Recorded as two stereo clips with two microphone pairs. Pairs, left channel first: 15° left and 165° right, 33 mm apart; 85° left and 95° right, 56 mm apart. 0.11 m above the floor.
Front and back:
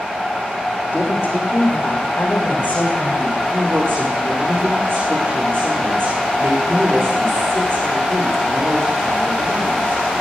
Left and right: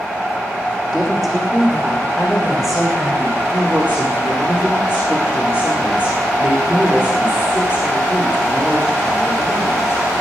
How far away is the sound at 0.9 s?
About 5.5 m.